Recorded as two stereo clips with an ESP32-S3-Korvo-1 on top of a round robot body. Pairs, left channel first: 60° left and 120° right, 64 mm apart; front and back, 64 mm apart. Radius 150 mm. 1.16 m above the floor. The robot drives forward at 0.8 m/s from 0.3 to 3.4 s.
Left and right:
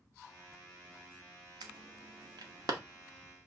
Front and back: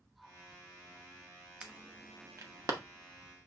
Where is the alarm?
110° right, 0.9 m; by 2.7 s 145° right, 1.4 m.